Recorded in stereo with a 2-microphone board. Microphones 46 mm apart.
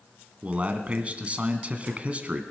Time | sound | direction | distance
0.4 | a man speaking | 30° right (ahead or behind) | 1.6 m